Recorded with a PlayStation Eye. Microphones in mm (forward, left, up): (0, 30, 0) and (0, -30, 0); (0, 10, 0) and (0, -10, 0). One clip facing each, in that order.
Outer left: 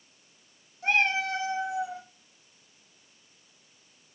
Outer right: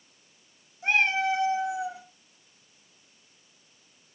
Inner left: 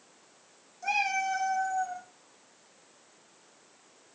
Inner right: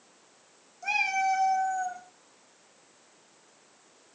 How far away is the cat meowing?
About 0.8 m.